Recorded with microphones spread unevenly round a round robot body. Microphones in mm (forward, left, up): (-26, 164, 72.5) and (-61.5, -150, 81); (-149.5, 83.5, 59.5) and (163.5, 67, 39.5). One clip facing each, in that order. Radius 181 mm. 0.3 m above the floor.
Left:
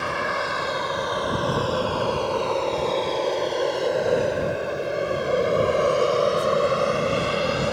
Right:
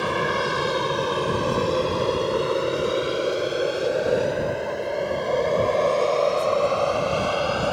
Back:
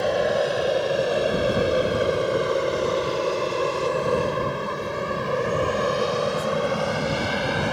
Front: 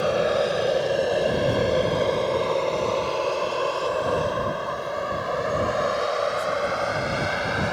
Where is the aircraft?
85° right; by 7.7 s 140° left.